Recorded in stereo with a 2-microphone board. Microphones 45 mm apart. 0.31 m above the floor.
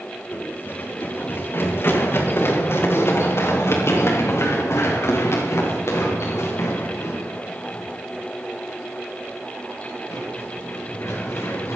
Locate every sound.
0.3 s running footsteps: 45° left (ahead or behind), 6.5 m; by 11.8 s 80° left, 12 m